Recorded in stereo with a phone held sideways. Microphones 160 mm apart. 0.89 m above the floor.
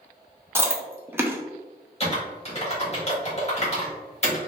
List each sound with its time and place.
0.6 s chewing: 15° right (ahead or behind), 0.6 m
2.0 s typing on a keyboard: 45° left (ahead or behind), 1.4 m